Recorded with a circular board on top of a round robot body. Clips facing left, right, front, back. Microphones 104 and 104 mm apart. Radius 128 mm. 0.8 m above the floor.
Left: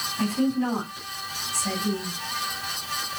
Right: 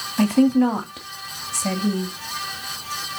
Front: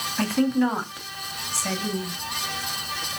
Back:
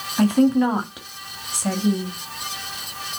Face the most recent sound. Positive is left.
turn(degrees=-110)